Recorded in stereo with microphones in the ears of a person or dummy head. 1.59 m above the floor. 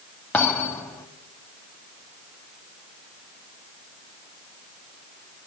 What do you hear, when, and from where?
0.3 s a thud: 5° left (ahead or behind), 1.4 m